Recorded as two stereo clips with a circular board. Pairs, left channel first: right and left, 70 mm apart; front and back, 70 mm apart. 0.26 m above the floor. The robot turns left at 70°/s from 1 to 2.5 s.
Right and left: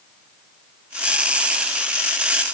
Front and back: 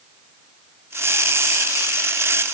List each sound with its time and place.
Only background noise.